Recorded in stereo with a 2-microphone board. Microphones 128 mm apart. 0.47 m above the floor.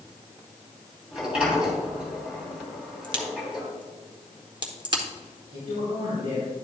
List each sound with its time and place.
1.1 s a sliding door: 5° right (ahead or behind), 3 m
3.0 s a crack: 40° right (ahead or behind), 1.1 m
5.5 s a man speaking: 75° right (ahead or behind), 4 m